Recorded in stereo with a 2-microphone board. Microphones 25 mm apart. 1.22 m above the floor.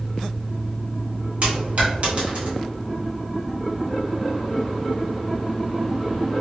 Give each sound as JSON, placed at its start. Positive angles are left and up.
{"t": 1.4, "sound": "a dropped coin", "side_deg": -55, "distance_m": 1.0}